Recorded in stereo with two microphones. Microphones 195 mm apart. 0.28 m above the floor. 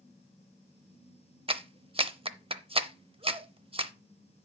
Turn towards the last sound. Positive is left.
turn(degrees=-30)  # may be behind; listen again after turning